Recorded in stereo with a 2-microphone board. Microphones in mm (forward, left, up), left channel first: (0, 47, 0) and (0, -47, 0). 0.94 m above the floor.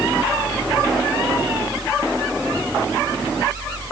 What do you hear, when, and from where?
Only background noise.